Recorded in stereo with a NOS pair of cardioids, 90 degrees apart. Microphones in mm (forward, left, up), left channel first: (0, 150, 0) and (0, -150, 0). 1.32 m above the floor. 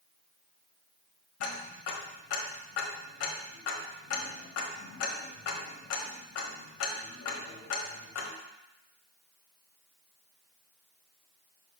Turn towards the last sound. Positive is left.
turn(degrees=55)